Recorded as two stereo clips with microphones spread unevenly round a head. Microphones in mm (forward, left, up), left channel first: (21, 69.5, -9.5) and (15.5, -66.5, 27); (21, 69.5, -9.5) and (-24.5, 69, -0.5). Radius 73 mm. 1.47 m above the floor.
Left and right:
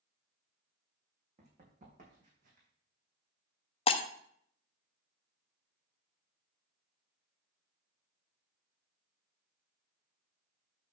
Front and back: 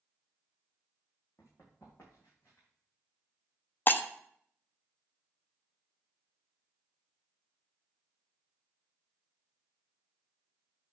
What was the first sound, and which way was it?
Running footsteps, 65° right.